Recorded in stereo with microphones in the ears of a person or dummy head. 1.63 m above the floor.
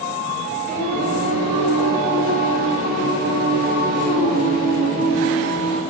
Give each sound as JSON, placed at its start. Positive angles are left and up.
{"t": 0.7, "sound": "singing", "side_deg": -50, "distance_m": 4.5}